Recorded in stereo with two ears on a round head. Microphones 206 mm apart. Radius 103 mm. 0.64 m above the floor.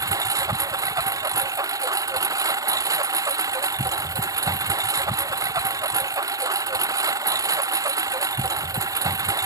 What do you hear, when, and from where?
0.0 s a lawn mower: 15° right (ahead or behind)